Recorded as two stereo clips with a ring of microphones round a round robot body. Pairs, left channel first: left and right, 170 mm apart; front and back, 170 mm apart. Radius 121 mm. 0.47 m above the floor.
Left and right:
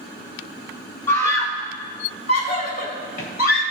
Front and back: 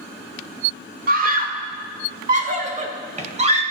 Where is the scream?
170° left, 1.3 m; by 3.6 s 135° left, 2 m.